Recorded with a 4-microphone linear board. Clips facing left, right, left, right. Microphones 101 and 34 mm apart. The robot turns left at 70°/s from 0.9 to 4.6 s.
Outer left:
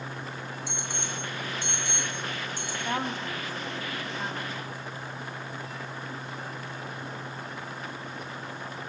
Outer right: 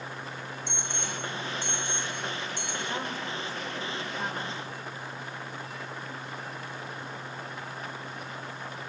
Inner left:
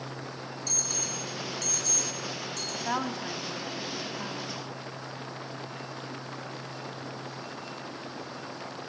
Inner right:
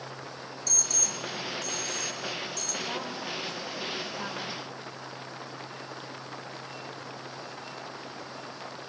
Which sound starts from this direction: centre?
An alarm, at 0.7 s.